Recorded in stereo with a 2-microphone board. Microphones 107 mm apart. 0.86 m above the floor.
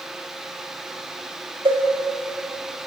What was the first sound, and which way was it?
A cowbell, 50° right (ahead or behind).